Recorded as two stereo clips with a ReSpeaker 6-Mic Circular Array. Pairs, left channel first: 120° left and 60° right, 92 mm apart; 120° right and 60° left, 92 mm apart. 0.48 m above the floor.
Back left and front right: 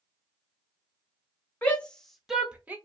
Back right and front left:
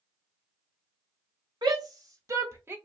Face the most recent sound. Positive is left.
turn(degrees=5)